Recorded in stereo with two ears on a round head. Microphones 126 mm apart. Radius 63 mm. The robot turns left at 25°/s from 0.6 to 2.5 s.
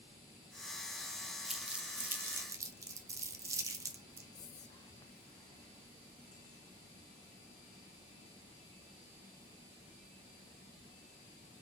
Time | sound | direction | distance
1.5 | crumpling | centre (ahead or behind) | 0.6 m
4.3 | whispering | 25° left (ahead or behind) | 0.5 m